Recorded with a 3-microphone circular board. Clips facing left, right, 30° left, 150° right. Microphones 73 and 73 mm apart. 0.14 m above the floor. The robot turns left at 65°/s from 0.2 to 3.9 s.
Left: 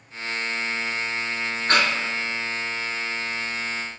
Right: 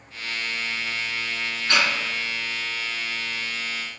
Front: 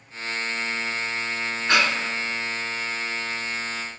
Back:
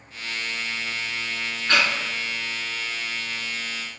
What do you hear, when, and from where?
1.7 s breathing: 100° left, 0.6 m; by 1.9 s 85° left, 0.6 m